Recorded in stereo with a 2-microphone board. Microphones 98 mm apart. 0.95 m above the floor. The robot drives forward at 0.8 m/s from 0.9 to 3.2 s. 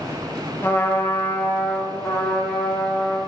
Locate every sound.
0.6 s a trumpet: 20° left (ahead or behind), 1.2 m; by 3.2 s 10° left (ahead or behind), 3 m